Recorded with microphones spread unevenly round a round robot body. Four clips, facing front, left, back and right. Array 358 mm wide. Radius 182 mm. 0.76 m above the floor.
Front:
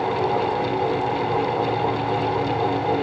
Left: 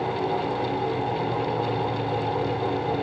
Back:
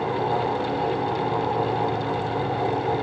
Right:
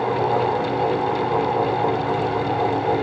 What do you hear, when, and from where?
Only background noise.